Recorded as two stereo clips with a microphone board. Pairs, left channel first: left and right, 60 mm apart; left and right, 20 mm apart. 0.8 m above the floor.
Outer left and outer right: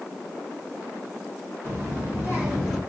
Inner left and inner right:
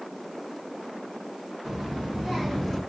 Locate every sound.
1.6 s a child speaking: 35° right (ahead or behind), 1.2 m; by 2.8 s 5° right (ahead or behind), 0.8 m